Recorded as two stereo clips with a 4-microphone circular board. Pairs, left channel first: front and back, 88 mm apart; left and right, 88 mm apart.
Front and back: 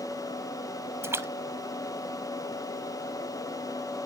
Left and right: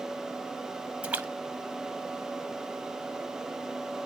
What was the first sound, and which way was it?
A splash, 155° right.